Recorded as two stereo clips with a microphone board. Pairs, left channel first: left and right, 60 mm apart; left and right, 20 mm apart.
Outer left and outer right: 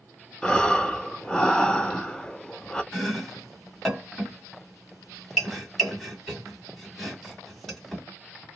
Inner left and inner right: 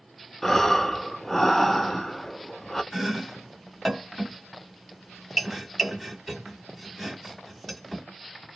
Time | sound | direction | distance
0.4 | breathing | 15° left (ahead or behind) | 0.5 m
2.9 | chopping | 5° left (ahead or behind) | 1.9 m